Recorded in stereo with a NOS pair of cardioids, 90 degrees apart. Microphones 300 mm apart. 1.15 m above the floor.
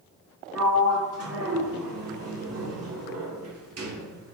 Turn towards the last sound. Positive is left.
turn(degrees=-55)